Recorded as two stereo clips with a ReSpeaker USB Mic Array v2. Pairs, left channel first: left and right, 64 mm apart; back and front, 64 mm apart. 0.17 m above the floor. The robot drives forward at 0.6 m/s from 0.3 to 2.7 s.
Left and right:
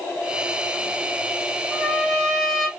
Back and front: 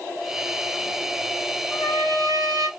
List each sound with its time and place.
1.7 s a trumpet: straight ahead, 1.3 m; by 2.7 s 5° left, 0.7 m